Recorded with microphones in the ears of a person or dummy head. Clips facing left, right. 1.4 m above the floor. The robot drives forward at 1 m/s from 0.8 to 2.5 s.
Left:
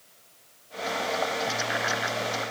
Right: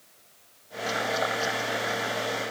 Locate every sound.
Only background noise.